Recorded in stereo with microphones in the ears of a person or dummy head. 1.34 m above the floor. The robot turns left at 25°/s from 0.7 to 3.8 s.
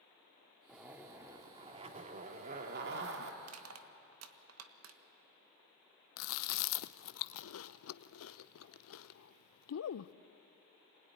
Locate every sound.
0.7 s a zipper: 5° right, 2.0 m; by 3.3 s 70° right, 2.0 m
3.4 s crushing: 85° right, 1.4 m; by 5.0 s 80° right, 1.4 m
6.2 s chewing: 80° left, 0.6 m